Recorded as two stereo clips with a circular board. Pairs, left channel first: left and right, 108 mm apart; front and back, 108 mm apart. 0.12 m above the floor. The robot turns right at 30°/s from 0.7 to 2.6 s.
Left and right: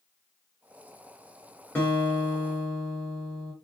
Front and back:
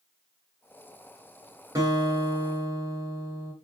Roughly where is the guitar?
Behind left.